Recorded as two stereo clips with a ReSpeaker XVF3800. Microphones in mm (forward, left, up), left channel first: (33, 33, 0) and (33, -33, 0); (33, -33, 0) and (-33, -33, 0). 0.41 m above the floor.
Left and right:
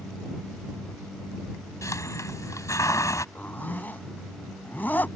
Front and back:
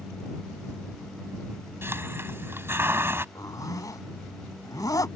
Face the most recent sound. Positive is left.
turn(degrees=25)